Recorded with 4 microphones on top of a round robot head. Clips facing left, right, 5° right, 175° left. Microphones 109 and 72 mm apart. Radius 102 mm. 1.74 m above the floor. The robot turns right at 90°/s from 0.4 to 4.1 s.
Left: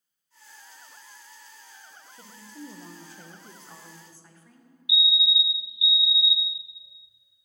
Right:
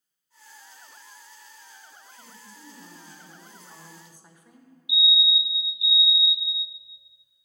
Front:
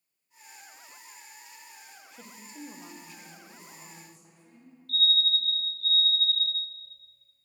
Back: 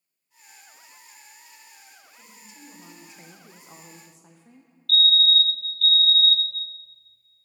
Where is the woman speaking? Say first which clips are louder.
Left 6 dB, front 7 dB; 15° left, 0.8 m; by 4.7 s 165° right, 0.8 m.